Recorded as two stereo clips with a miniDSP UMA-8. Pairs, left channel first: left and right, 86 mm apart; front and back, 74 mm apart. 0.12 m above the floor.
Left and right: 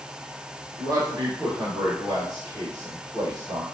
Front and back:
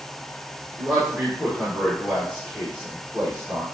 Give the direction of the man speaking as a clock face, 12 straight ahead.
3 o'clock.